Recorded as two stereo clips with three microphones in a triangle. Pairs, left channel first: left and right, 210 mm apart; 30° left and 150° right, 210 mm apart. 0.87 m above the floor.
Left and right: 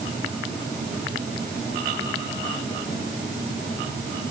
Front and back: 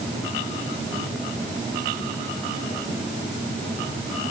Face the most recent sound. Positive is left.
No sound to turn to.